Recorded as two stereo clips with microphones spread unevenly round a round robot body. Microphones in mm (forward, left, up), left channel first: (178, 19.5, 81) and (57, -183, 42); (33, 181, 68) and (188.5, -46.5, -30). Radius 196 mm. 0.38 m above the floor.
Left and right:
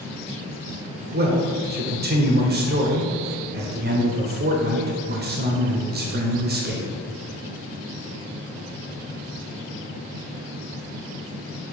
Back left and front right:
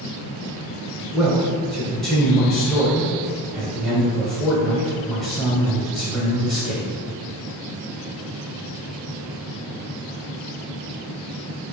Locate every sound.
1.1 s a man speaking: 125° right, 1.1 m